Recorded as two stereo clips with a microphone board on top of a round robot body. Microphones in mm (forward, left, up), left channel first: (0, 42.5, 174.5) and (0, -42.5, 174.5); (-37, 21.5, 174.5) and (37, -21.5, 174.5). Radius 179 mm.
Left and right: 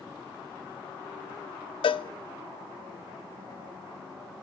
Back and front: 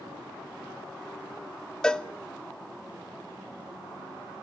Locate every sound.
1.8 s a cowbell: 70° left, 0.5 m